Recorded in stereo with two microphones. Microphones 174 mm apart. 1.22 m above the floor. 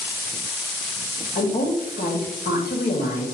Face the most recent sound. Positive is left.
turn(degrees=55)  # may be behind; listen again after turning